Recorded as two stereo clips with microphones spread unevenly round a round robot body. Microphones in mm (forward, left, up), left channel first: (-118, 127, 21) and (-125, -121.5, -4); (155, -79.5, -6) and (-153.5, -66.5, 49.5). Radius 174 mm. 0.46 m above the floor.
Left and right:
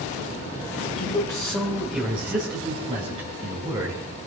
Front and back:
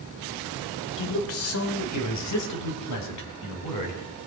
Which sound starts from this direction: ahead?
A man speaking, at 1.0 s.